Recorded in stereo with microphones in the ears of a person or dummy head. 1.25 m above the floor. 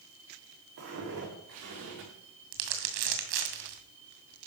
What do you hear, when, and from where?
0.8 s footsteps: 65° right (ahead or behind), 7 m; by 2.1 s 70° right (ahead or behind), 6.5 m
2.5 s crumpling: 65° right (ahead or behind), 2 m